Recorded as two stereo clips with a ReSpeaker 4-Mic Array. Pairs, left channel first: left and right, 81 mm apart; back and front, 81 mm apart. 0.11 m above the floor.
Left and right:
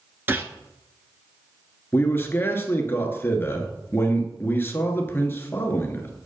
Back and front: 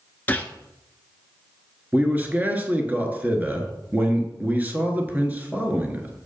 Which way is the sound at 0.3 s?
130° right.